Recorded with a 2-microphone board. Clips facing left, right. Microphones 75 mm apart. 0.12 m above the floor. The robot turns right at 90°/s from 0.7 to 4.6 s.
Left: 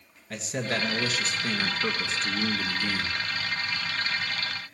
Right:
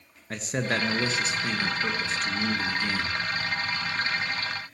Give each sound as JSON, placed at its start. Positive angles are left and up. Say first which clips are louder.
{"t": 0.3, "sound": "a man speaking", "louder": "right 2 dB", "azimuth_deg": -75, "distance_m": 1.9}